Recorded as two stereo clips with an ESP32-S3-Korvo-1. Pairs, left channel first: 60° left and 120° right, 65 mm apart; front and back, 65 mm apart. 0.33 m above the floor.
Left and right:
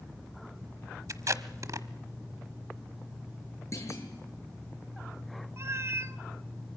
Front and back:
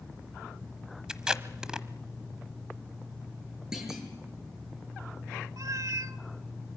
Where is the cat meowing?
160° right, 0.8 m.